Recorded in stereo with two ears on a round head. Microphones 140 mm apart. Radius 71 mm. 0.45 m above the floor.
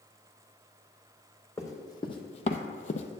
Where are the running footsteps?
20° left (ahead or behind), 1.1 m; by 3.2 s 40° left (ahead or behind), 0.8 m.